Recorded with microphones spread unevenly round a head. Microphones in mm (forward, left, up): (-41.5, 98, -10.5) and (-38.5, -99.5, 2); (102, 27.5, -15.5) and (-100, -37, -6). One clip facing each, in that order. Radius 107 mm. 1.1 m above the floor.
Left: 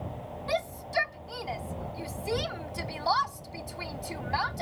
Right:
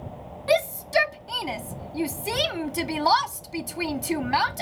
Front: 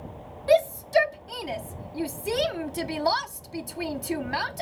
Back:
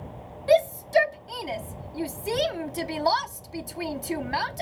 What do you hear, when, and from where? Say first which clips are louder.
0.5 s a shout: right 10 dB, even; 70° right